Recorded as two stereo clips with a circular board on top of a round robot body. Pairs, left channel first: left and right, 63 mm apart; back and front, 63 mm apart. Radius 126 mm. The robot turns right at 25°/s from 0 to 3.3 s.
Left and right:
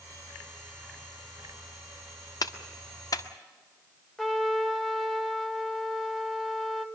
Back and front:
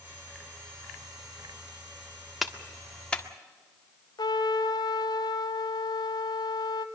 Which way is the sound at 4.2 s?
175° left.